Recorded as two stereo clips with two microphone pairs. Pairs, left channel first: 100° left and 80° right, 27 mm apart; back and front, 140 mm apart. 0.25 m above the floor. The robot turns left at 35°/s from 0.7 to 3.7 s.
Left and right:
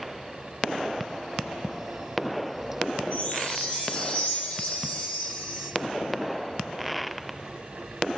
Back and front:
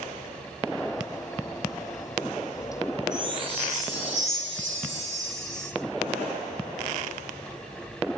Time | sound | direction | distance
3.1 | a chime | 60° left | 10 m